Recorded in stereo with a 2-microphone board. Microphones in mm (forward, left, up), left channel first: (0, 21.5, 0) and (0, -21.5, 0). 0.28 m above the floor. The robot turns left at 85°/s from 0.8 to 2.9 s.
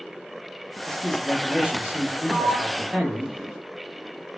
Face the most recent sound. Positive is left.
turn(degrees=-5)  # may be behind; listen again after turning